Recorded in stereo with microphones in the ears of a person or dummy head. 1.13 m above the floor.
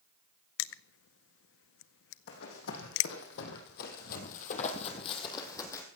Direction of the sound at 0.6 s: 65° left (ahead or behind).